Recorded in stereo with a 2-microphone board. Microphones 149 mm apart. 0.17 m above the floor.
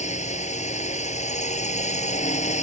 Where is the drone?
50° left (ahead or behind).